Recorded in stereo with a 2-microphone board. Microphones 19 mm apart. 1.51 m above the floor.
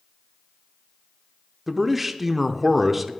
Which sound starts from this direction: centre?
A man speaking, at 1.7 s.